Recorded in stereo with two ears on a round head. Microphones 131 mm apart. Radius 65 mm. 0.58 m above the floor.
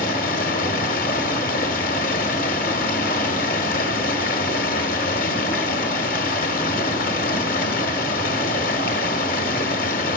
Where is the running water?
65° left (ahead or behind), 1.1 m.